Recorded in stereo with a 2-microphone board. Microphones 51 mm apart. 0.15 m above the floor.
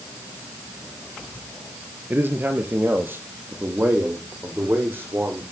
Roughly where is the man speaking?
Right.